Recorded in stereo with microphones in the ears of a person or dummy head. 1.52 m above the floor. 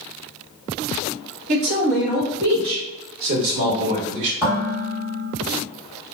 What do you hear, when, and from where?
1.5 s a man speaking: 50° right (ahead or behind), 0.6 m; by 4.3 s 60° right (ahead or behind), 1.7 m
4.4 s dishes clattering: 10° right (ahead or behind), 1.1 m